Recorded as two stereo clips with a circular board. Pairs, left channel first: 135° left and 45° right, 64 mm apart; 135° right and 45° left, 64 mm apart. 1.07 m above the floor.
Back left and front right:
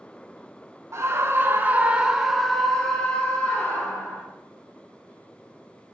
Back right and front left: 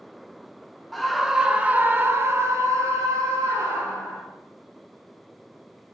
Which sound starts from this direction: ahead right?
A scream, at 0.9 s.